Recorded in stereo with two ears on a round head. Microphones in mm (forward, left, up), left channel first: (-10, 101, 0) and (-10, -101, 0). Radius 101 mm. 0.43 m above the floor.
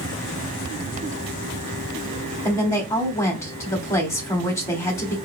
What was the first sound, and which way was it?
A woman speaking, 15° left (ahead or behind).